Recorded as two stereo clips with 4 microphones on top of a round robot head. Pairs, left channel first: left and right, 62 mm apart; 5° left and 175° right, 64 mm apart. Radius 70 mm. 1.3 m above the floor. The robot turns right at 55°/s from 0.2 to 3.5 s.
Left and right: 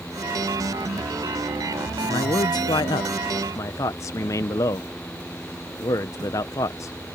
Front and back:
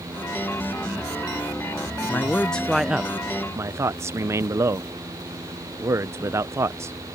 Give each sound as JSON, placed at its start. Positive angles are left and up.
{"t": 2.1, "sound": "a man speaking", "azimuth_deg": 60}